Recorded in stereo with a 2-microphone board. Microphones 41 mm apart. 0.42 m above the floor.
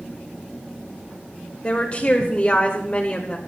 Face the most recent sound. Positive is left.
turn(degrees=30)  # may be behind; listen again after turning